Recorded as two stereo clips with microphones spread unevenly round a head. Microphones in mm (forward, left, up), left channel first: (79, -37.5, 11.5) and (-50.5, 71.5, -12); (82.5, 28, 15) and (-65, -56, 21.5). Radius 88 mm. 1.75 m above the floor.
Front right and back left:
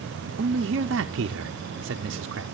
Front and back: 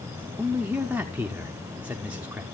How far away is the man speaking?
About 0.7 m.